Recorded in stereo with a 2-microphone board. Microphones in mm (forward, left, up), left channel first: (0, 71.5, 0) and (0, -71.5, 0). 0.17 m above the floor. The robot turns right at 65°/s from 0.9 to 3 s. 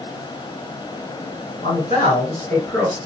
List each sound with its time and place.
1.6 s a man speaking: 90° left, 1.7 m; by 3.0 s 175° left, 1.7 m